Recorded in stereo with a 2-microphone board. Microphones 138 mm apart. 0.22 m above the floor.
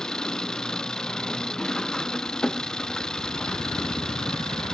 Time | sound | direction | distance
0.0 | an engine running | 5° left (ahead or behind) | ?